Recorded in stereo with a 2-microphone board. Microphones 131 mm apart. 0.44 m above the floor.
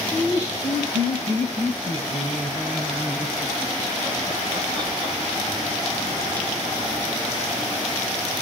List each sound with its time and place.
0.1 s laughter: 55° right (ahead or behind), 2.5 m; by 5.1 s 25° right (ahead or behind), 5 m